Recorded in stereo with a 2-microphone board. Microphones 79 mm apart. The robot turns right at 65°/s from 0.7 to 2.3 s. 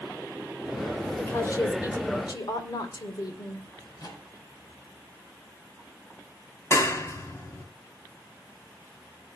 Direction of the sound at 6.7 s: 35° left (ahead or behind).